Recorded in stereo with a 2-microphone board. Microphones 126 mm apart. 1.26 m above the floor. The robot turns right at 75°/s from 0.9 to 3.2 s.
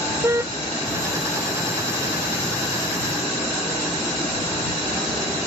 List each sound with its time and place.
0.2 s a car horn: 20° right (ahead or behind)